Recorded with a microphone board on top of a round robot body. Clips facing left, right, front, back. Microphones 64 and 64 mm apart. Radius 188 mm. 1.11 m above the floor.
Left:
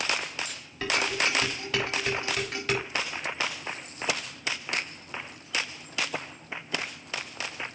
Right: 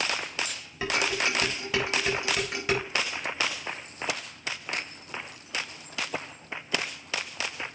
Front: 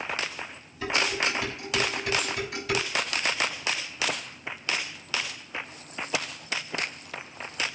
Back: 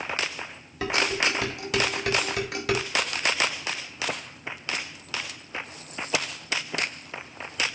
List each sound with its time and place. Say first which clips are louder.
0.8 s dishes clattering: even, back 2 dB; 165° right, 4.5 m